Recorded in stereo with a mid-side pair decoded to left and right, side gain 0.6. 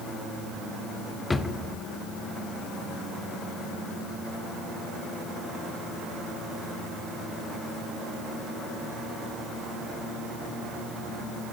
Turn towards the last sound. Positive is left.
turn(degrees=20)